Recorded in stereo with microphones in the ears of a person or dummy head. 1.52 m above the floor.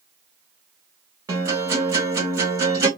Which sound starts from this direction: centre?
A guitar, at 1.3 s.